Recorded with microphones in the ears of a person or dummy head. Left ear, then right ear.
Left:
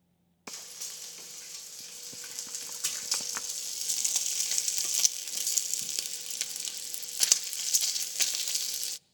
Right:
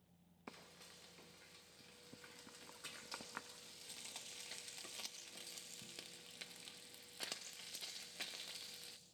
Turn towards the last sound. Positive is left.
turn(degrees=80)